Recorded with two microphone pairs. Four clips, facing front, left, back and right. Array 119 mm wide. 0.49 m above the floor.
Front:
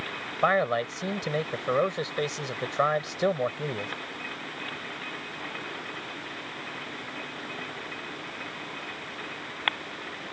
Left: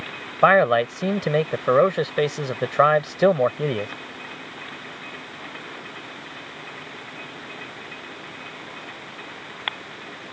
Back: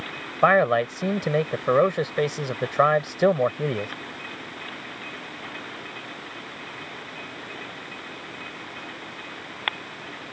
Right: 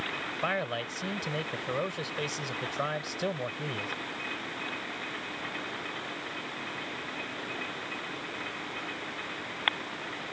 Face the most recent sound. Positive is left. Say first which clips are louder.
# left 17 dB, back 6 dB
turn(degrees=115)